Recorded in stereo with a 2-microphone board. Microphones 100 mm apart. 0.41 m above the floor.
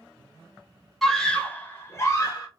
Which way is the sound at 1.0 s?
Centre (ahead or behind).